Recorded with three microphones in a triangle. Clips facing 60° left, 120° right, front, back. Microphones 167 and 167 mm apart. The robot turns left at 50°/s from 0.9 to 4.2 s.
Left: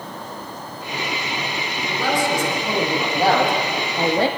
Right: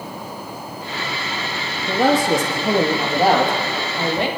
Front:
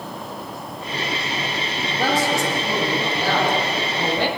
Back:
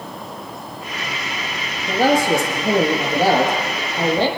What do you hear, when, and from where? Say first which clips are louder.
1.9 s a man speaking: right 6 dB, back 6 dB; 130° right, 4.5 m; by 4.3 s 115° left, 4.5 m